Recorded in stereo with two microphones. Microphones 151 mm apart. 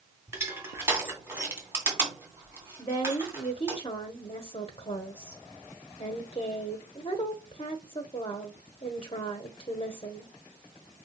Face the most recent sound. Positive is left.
turn(degrees=40)  # may be behind; listen again after turning